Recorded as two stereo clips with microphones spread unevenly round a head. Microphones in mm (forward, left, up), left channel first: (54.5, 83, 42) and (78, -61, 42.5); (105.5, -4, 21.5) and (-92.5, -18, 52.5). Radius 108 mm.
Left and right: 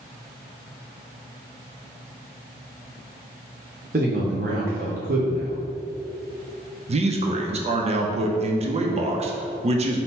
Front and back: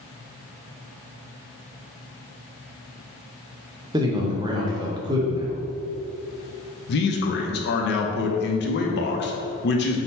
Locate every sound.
3.9 s a man speaking: 115° right, 0.7 m
6.9 s a man speaking: 35° right, 0.6 m